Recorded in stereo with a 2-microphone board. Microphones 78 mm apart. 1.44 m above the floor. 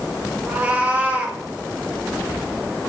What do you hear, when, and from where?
0.5 s a cat meowing: 20° right (ahead or behind), 1.1 m